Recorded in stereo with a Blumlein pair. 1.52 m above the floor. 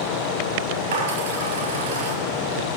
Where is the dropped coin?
60° right, 4 m.